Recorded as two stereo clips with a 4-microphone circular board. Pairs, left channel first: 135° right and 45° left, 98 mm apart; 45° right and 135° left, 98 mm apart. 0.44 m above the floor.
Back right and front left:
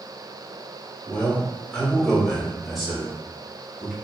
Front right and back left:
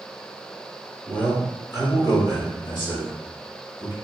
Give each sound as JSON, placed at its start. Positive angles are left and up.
{"t": 1.1, "sound": "a man speaking", "azimuth_deg": -90, "distance_m": 1.1}